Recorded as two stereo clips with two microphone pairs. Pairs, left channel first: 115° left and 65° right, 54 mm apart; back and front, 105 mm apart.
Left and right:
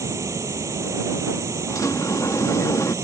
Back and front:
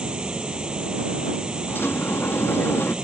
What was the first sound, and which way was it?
Running water, 80° right.